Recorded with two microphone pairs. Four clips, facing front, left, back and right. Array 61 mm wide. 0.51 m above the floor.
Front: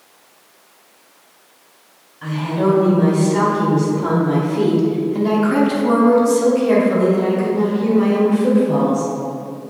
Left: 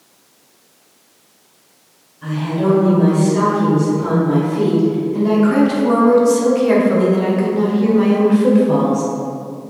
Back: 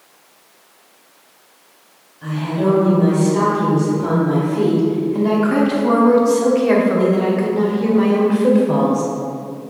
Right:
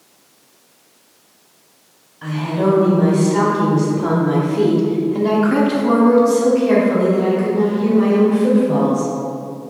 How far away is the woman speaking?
About 2 m.